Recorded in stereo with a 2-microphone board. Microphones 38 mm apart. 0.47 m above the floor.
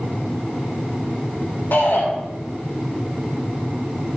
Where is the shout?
55° left (ahead or behind), 2 m.